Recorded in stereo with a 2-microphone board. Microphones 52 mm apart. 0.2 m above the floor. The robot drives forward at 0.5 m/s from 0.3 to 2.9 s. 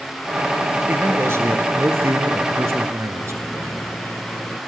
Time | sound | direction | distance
0.9 | a man speaking | 55° right (ahead or behind) | 3 m
3.2 | a microwave | 35° left (ahead or behind) | 3 m